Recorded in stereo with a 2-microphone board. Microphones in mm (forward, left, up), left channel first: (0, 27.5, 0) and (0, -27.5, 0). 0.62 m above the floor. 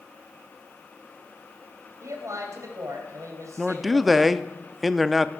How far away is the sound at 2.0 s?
About 3 m.